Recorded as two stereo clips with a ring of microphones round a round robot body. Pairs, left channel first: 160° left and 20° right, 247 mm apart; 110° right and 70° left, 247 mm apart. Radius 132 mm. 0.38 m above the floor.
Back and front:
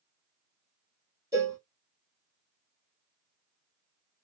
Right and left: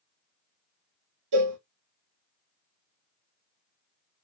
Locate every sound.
1.3 s a cowbell: 55° left, 1.2 m